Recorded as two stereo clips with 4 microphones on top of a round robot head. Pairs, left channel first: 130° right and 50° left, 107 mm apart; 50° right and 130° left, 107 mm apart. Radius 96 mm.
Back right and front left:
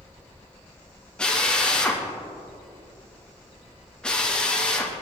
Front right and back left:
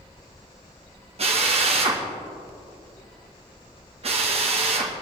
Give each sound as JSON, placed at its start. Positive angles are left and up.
{"t": 1.2, "sound": "a drill", "azimuth_deg": 150, "distance_m": 2.0}